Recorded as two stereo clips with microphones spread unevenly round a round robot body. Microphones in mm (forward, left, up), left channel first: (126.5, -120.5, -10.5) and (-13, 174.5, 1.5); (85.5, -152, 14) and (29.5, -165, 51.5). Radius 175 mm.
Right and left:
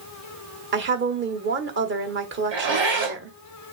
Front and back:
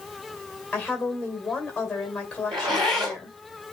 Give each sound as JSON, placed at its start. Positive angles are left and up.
{"t": 0.7, "sound": "a woman speaking", "azimuth_deg": 65, "distance_m": 1.3}
{"t": 2.5, "sound": "a zipper", "azimuth_deg": 175, "distance_m": 2.0}